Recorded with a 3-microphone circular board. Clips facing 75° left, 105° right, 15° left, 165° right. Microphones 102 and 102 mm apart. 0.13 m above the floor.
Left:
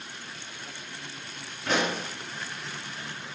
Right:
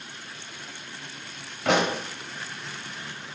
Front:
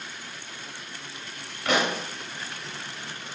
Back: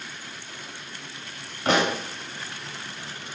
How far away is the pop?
About 4.5 m.